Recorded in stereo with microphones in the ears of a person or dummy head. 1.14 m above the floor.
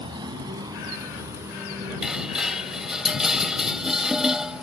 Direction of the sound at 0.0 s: 25° right (ahead or behind).